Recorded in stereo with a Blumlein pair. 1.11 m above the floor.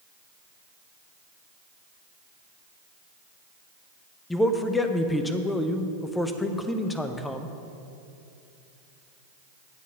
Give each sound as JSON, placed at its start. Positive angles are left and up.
{"t": 4.3, "sound": "a man speaking", "azimuth_deg": 10, "distance_m": 0.7}